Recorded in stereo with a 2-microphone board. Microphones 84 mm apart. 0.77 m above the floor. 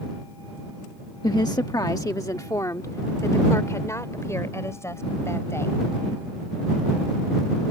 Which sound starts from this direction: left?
A woman speaking, at 1.2 s.